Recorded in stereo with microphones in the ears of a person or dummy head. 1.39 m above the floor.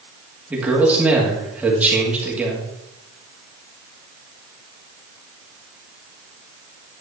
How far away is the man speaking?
About 2 m.